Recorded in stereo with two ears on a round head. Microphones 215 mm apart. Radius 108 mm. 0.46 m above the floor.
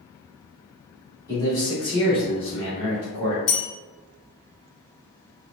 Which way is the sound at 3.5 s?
50° left (ahead or behind).